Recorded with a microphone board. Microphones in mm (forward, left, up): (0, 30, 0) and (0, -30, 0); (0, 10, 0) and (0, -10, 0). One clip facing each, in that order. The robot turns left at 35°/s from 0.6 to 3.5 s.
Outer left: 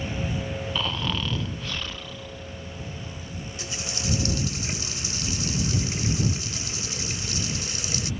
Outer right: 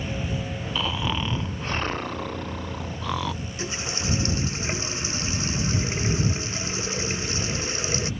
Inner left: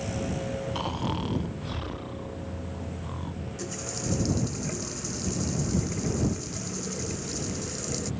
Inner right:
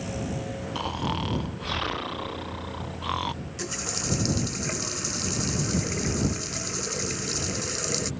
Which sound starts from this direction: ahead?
Snoring, at 0.8 s.